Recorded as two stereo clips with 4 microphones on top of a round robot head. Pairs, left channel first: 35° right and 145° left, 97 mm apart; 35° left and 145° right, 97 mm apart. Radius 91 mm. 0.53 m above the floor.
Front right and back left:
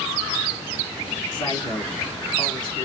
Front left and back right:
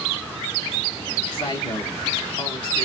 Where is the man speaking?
5° left, 3.5 m.